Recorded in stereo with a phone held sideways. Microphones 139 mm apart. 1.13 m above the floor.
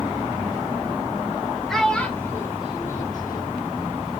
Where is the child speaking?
5° right (ahead or behind), 1.3 m; by 3.6 s 85° left, 1.2 m.